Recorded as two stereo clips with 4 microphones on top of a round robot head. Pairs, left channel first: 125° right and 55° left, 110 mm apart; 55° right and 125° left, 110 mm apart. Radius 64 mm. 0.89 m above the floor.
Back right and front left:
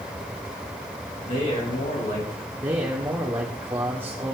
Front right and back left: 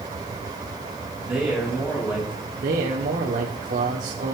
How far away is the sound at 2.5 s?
About 1.9 m.